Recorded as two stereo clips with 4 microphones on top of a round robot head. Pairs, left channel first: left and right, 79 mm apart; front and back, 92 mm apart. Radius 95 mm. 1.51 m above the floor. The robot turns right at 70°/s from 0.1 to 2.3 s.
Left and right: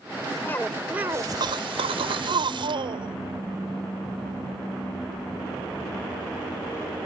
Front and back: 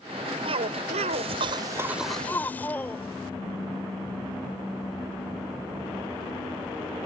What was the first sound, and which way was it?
A cough, 155° left.